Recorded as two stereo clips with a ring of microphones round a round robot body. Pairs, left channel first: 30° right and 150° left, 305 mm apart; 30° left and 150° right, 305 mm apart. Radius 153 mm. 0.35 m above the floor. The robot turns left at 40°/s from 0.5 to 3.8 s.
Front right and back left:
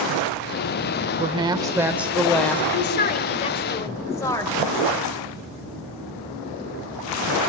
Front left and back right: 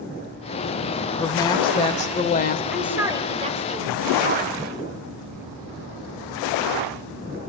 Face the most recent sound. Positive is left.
turn(degrees=-105)